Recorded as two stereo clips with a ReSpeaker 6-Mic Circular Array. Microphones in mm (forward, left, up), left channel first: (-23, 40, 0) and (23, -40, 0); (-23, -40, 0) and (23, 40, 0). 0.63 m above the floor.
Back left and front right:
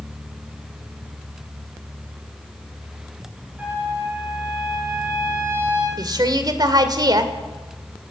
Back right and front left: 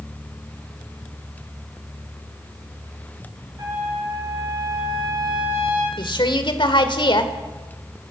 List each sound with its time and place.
3.6 s a trumpet: 10° left, 8 m
6.0 s a woman speaking: 100° right, 2 m